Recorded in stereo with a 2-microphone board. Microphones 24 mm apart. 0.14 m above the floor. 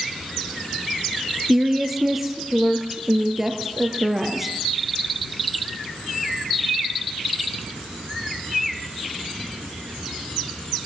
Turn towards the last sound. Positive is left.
turn(degrees=-10)  # may be behind; listen again after turning